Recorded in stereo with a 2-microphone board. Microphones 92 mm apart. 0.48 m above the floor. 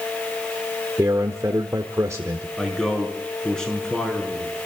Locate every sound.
1.0 s a man speaking: 35° right (ahead or behind), 1.2 m
2.6 s a man speaking: 5° left (ahead or behind), 5.5 m